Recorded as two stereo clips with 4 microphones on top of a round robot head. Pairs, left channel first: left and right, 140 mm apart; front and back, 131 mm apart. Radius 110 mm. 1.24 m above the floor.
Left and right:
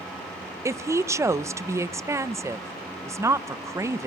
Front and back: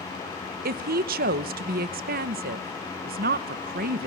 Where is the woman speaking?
160° right, 0.8 m.